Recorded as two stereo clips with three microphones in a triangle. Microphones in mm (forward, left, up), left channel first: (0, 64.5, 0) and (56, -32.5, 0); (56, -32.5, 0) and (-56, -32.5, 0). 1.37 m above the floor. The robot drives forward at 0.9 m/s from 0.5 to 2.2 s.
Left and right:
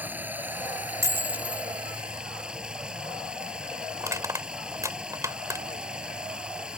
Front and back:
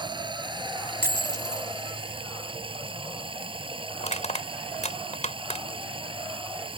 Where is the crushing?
5° left.